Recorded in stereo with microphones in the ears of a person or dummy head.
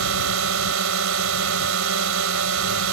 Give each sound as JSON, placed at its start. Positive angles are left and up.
{"t": 0.0, "sound": "a drone", "side_deg": -70}